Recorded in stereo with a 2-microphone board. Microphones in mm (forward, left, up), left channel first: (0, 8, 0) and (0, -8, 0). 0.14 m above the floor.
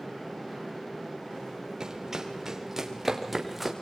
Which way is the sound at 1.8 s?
40° right (ahead or behind).